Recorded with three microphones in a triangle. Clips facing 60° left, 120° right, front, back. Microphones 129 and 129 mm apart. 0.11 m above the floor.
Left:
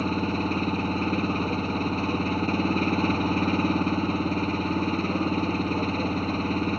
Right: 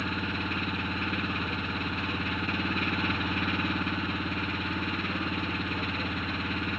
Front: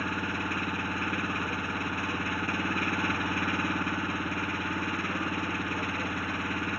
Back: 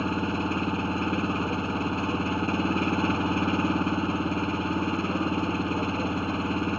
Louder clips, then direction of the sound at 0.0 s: Left 7 dB, back 6 dB; 115° left.